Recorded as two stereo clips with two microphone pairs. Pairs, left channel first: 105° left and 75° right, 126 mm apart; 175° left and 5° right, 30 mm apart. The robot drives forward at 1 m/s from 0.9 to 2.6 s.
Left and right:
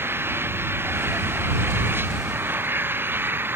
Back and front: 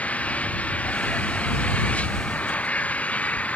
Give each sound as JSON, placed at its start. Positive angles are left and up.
{"t": 0.0, "sound": "an engine running", "azimuth_deg": -145}